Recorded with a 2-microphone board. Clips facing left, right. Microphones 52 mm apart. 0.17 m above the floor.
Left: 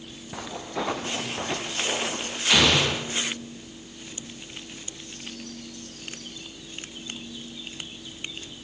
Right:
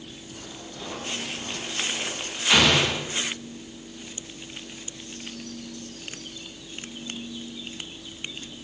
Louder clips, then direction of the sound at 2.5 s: Right 1 dB; 10° right (ahead or behind).